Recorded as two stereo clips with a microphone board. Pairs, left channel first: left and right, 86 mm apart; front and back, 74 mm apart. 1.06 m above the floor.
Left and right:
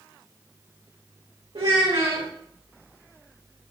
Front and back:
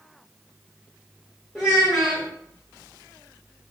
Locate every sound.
1.6 s a child speaking: 80° right, 0.9 m